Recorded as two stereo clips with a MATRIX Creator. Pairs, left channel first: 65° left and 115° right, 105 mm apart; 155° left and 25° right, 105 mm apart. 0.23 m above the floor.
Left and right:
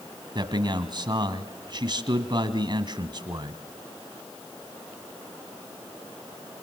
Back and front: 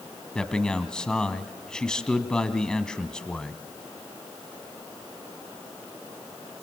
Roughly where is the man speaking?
Behind right.